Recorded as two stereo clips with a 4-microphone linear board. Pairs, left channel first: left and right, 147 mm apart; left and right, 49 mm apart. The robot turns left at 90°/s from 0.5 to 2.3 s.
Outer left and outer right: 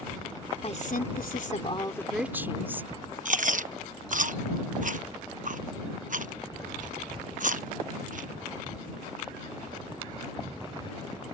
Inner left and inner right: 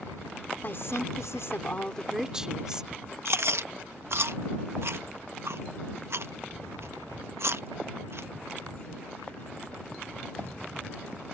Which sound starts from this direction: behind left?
A woman speaking, at 0.6 s.